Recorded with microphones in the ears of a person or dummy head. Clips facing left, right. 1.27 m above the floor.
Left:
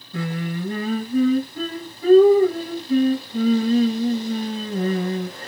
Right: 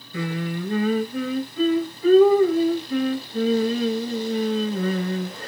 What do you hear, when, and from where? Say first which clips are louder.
0.1 s singing: even; 40° left (ahead or behind), 1.4 m